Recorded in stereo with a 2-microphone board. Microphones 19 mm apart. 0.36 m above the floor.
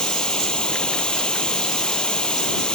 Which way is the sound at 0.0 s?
60° left (ahead or behind).